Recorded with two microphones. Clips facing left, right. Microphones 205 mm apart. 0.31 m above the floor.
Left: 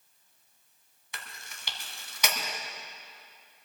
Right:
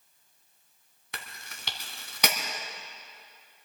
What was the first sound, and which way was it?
Chewing, 55° right (ahead or behind).